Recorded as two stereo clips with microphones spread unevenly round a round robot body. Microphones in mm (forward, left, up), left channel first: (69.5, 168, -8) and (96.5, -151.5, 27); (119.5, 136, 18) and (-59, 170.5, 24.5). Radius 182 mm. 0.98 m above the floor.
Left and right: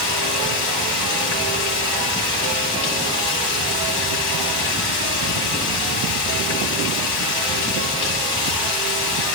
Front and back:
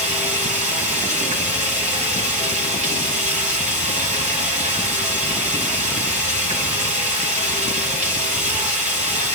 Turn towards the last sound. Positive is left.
turn(degrees=120)